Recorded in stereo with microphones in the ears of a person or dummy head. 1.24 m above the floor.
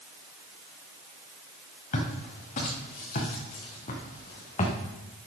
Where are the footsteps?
45° left (ahead or behind), 5 m; by 4.8 s 35° left (ahead or behind), 3 m.